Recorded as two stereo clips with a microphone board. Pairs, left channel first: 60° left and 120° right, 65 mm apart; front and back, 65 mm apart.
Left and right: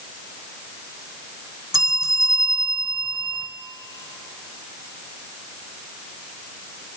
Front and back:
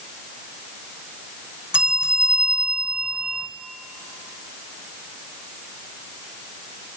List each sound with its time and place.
1.7 s a bell: 105° right, 0.7 m